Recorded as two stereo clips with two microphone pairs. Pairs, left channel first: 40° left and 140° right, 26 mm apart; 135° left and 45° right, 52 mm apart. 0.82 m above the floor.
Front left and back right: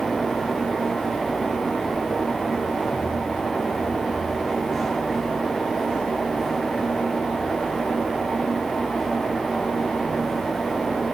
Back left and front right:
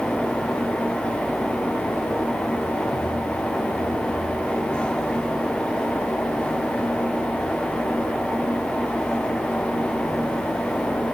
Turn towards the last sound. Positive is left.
No sound to turn to.